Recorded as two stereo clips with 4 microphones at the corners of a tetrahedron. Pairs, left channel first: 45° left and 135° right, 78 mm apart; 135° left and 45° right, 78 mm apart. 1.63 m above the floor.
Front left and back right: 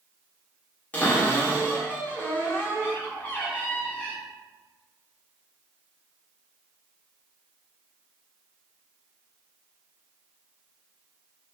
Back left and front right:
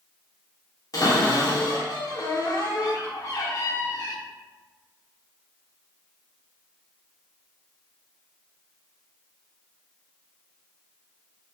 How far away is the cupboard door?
About 0.7 m.